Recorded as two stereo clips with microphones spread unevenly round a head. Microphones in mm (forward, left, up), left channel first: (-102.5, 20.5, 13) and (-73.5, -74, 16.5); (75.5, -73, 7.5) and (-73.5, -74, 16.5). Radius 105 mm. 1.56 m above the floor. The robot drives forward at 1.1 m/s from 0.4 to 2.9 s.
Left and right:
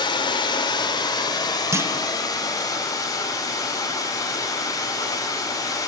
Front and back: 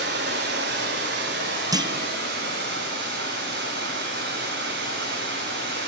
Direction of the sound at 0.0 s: 145° left.